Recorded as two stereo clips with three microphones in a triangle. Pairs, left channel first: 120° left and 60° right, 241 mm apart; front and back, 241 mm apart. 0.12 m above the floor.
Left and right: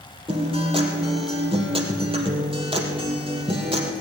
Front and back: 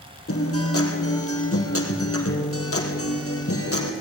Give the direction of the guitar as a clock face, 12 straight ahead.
12 o'clock.